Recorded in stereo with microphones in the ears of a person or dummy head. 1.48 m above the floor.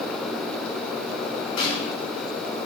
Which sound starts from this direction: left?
A snare drum, at 1.6 s.